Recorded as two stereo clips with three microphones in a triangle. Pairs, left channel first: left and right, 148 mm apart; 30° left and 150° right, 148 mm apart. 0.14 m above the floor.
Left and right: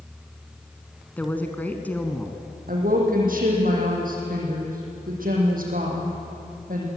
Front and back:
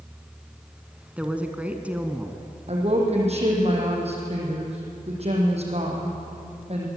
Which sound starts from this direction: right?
A woman speaking, at 2.7 s.